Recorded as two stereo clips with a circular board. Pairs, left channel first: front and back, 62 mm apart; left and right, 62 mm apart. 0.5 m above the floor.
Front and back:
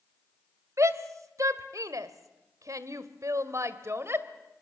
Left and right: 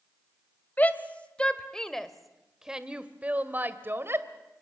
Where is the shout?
150° left, 2 m; by 4.3 s 135° right, 2 m.